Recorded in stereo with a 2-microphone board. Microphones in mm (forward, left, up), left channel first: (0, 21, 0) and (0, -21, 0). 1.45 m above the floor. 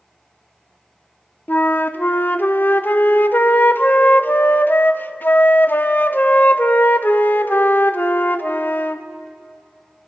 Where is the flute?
50° left (ahead or behind), 0.5 m.